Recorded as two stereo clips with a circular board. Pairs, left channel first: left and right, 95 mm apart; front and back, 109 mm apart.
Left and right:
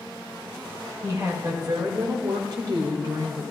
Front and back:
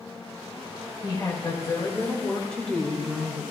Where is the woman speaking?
45° right, 2.5 m; by 3.4 s 110° right, 2 m.